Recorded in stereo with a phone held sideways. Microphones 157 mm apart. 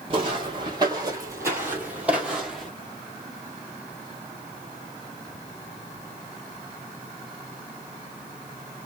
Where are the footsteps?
35° right (ahead or behind), 2 m; by 2.7 s centre (ahead or behind), 2 m.